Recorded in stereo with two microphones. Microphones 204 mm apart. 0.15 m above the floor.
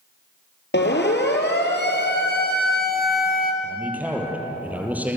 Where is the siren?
65° left (ahead or behind), 4 m; by 3.5 s 50° left (ahead or behind), 2.5 m.